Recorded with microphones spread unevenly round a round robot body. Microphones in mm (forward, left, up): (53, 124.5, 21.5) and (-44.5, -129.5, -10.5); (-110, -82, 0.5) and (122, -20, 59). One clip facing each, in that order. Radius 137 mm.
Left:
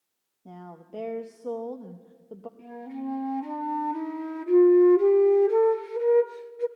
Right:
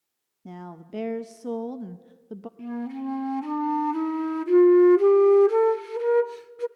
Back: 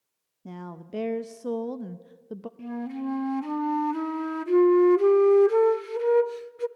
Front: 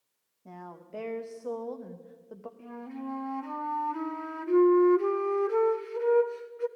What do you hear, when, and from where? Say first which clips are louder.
0.5 s a woman speaking: right 4 dB, back 7 dB; 150° right, 0.6 m
2.6 s a flute: right 5 dB, back 8 dB; 160° right, 0.6 m